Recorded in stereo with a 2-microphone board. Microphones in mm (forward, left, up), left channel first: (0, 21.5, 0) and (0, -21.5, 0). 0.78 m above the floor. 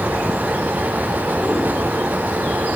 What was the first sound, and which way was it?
Only background noise.